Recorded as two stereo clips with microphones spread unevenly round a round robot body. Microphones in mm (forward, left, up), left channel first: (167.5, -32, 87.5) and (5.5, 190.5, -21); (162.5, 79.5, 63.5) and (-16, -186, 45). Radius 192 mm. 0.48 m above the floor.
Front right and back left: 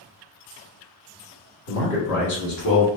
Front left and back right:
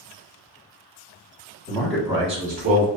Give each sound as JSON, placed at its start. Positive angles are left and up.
{"t": 1.7, "sound": "a man speaking", "azimuth_deg": 0, "distance_m": 1.0}